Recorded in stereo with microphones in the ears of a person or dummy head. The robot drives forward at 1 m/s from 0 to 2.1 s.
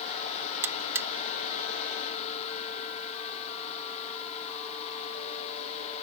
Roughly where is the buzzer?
Centre.